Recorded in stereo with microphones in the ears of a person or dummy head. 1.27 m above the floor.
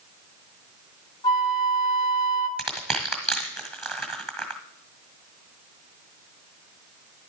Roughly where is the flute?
Left.